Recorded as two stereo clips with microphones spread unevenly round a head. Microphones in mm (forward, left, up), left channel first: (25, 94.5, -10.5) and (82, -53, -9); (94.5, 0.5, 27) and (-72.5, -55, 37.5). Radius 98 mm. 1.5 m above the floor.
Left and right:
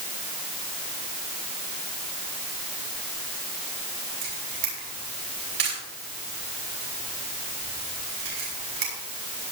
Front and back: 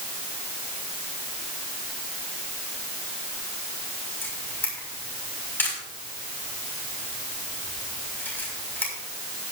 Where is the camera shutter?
60° right, 6 m.